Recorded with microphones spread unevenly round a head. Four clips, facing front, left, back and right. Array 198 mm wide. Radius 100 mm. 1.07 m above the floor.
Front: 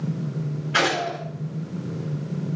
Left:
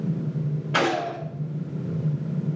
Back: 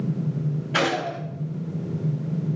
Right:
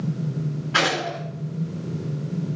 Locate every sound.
0.7 s a gunshot: 115° left, 5.5 m